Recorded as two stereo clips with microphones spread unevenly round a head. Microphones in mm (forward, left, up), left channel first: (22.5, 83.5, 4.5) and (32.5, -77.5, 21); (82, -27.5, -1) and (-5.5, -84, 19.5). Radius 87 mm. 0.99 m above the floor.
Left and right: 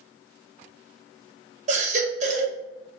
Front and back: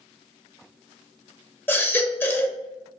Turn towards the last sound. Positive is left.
turn(degrees=-40)